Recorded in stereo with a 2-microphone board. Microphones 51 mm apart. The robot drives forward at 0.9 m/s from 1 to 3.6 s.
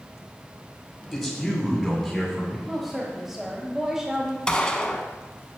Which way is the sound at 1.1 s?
Centre (ahead or behind).